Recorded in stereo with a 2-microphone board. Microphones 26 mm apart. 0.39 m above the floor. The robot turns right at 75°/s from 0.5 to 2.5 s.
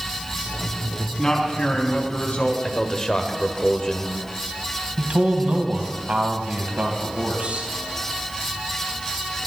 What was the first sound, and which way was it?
A man speaking, 25° left.